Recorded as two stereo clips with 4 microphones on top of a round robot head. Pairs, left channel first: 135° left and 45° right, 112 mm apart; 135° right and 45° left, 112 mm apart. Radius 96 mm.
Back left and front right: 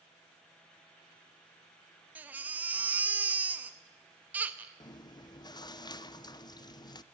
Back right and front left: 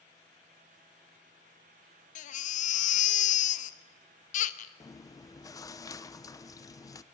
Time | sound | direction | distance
2.1 | a baby crying | 125° right | 0.7 m
4.8 | chewing | 175° left | 0.9 m